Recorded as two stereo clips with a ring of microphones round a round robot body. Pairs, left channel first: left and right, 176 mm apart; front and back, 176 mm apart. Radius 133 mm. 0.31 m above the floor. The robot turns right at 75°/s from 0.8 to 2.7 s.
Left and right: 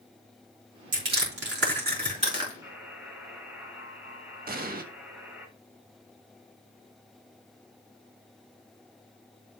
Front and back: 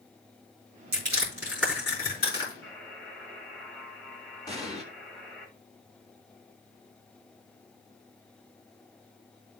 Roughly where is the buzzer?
Ahead.